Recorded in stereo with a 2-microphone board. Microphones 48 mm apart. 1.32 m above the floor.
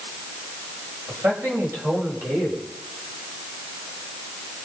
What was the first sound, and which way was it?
A man speaking, 80° right.